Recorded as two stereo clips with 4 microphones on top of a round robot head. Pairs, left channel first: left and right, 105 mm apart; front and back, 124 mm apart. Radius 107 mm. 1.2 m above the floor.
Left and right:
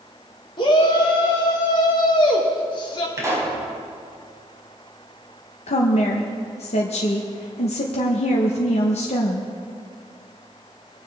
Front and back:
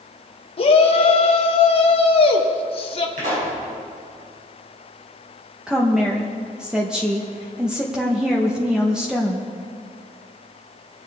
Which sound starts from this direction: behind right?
A pop, at 3.2 s.